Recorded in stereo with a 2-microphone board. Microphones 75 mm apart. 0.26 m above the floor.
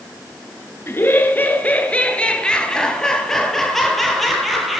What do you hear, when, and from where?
0.9 s laughter: 30° left (ahead or behind), 4.5 m; by 4.8 s centre (ahead or behind), 9 m